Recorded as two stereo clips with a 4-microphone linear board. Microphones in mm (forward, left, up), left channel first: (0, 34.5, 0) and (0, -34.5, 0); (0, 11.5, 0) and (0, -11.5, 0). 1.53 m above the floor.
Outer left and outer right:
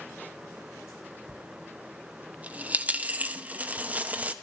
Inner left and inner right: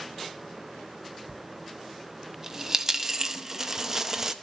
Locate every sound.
1.3 s a dropped coin: 20° right (ahead or behind), 0.9 m